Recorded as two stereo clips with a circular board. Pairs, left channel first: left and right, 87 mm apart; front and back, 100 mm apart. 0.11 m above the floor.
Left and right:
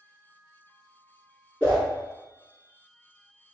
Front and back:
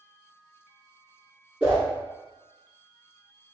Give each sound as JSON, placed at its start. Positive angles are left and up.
{"t": 1.6, "sound": "a whoosh", "azimuth_deg": 135, "distance_m": 1.7}